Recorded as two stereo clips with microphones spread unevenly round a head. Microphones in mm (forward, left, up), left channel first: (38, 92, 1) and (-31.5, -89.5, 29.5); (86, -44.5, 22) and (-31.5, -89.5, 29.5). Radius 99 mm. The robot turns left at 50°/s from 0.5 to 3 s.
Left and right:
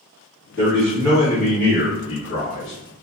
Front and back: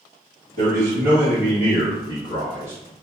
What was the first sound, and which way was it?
A man speaking, 170° left.